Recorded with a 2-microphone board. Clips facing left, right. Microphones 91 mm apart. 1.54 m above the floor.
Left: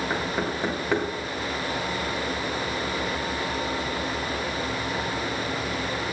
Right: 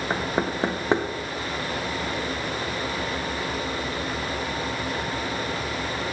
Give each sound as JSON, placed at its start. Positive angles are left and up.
{"t": 0.1, "sound": "knocking", "side_deg": -30, "distance_m": 1.0}